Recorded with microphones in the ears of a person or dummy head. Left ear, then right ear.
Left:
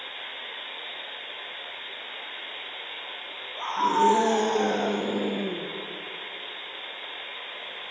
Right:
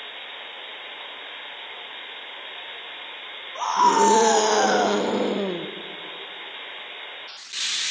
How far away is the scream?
About 1.5 m.